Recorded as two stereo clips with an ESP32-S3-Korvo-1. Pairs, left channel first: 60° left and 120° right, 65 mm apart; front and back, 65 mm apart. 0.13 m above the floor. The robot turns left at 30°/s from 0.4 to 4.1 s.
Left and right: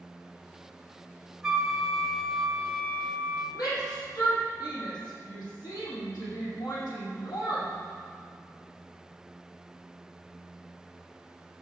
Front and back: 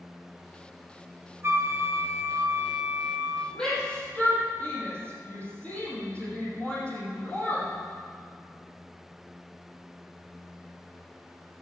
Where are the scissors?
No scissors in this recording.